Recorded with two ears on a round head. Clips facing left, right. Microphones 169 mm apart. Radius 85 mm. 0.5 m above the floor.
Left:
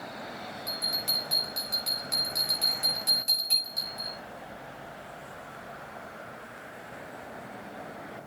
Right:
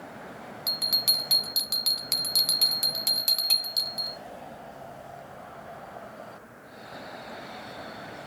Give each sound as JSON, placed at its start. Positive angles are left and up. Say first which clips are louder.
{"t": 0.7, "sound": "a bell", "louder": "left 1 dB", "side_deg": -75, "distance_m": 1.6}